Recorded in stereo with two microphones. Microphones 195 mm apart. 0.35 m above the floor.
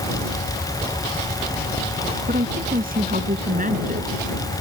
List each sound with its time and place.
2.3 s a woman speaking: 50° right (ahead or behind); by 4.2 s 40° right (ahead or behind)